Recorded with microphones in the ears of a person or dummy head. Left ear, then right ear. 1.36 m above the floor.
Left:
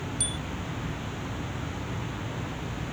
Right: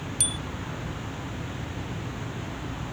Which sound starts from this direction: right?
A bicycle bell, at 0.2 s.